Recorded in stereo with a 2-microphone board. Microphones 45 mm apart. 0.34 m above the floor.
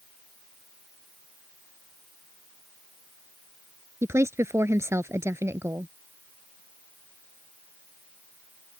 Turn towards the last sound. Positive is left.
turn(degrees=-75)  # may be behind; listen again after turning